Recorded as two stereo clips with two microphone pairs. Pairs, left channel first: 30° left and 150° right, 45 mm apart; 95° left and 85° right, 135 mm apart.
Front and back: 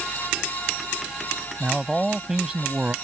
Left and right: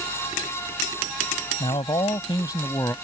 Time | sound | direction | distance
1.6 | a man speaking | 110° left | ?